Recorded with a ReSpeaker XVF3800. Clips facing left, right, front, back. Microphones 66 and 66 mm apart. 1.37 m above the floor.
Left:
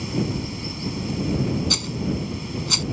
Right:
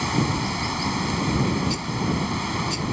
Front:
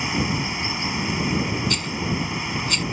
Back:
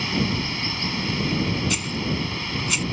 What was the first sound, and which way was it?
Running water, 75° right.